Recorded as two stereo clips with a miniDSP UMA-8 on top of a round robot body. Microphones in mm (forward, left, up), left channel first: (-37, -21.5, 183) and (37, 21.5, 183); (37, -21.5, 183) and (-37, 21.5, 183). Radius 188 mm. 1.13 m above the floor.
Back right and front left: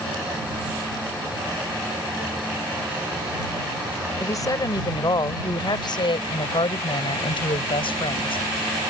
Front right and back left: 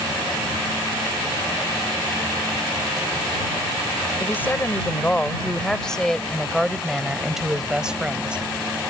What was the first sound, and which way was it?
A woman speaking, 100° right.